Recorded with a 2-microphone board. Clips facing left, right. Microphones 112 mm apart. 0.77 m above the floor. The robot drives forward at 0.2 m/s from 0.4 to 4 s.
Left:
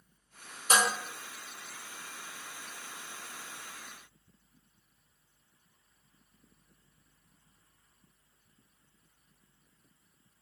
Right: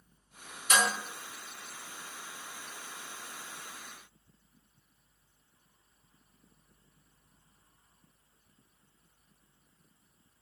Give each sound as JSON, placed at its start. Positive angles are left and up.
{"t": 0.7, "sound": "dishes clattering", "side_deg": 35, "distance_m": 0.6}